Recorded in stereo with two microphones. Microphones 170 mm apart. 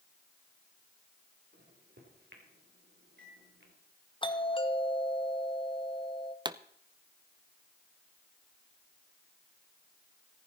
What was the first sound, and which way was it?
A microwave, 75° right (ahead or behind).